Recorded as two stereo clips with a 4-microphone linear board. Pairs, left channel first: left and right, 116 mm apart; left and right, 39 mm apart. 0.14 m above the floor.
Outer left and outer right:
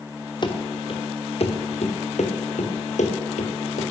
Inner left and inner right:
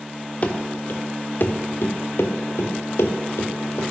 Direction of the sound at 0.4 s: 40° left (ahead or behind).